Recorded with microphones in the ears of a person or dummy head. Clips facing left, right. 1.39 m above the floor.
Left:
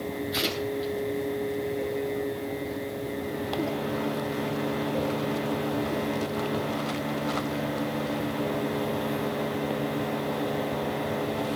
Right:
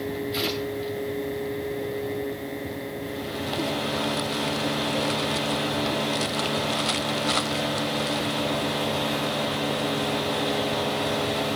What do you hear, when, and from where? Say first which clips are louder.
0.3 s tearing paper: right 1 dB; 15° left (ahead or behind), 9.5 m